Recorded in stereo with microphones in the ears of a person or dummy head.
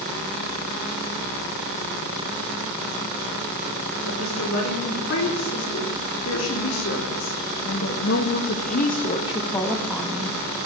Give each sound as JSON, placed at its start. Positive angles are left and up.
{"t": 4.0, "sound": "a woman speaking", "side_deg": 85, "distance_m": 5.0}